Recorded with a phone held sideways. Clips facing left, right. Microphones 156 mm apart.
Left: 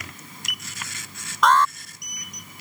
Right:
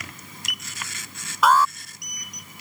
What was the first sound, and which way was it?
An alarm, 5° right (ahead or behind).